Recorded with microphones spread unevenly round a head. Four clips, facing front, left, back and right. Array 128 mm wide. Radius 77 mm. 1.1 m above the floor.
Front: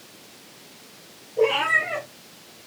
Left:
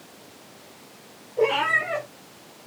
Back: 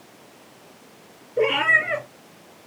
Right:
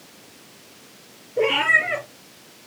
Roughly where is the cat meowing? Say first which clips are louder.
Right 1 dB, even; behind right.